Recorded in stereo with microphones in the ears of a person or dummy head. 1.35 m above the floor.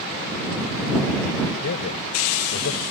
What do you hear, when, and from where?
1.6 s a man speaking: 75° left (ahead or behind)